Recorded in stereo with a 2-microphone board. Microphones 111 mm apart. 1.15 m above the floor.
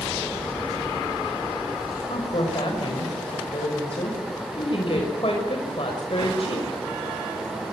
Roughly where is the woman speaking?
Left.